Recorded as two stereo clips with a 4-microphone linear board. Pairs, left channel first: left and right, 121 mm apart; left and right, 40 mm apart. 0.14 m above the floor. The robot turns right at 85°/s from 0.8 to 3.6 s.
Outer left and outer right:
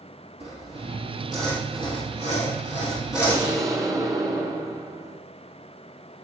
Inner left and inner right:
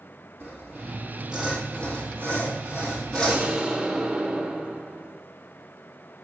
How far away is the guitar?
I don't hear a guitar.